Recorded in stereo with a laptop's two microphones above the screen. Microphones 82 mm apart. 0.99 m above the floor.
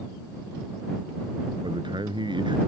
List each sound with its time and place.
1.6 s a man speaking: 70° right (ahead or behind)